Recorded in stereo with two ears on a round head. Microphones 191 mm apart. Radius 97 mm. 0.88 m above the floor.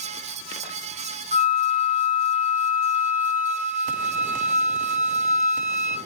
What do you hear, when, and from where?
1.3 s a flute: 35° right (ahead or behind), 2 m